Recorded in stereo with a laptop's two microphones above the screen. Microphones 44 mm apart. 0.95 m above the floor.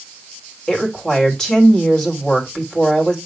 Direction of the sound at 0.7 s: 15° left (ahead or behind).